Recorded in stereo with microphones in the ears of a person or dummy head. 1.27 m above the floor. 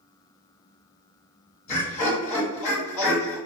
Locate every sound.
1.7 s laughter: 45° left (ahead or behind), 1.3 m